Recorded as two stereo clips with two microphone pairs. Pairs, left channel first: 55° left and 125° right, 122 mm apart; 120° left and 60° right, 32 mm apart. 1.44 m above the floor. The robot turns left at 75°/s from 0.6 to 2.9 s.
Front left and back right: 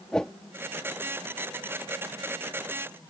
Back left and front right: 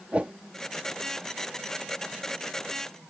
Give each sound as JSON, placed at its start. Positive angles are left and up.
{"t": 0.1, "sound": "a whoosh", "azimuth_deg": -25}